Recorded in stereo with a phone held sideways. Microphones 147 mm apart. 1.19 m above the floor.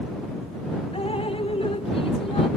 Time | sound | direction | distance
0.9 | dripping | 40° left (ahead or behind) | ?